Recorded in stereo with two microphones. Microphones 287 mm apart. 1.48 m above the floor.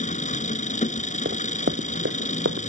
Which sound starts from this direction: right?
Running footsteps, at 1.2 s.